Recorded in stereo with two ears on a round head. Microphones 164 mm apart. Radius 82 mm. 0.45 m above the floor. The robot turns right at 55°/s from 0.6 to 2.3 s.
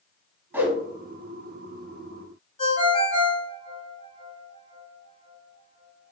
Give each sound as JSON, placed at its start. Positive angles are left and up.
{"t": 0.5, "sound": "a whoosh", "side_deg": -10, "distance_m": 0.6}
{"t": 2.6, "sound": "a ringtone", "side_deg": 35, "distance_m": 1.4}